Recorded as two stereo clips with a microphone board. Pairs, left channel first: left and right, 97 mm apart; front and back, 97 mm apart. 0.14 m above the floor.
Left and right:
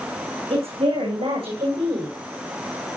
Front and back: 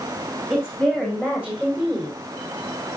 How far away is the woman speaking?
About 9 m.